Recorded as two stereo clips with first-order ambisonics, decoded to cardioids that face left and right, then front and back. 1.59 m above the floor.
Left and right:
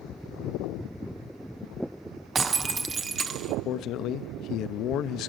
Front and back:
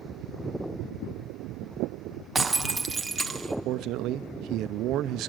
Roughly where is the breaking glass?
Right.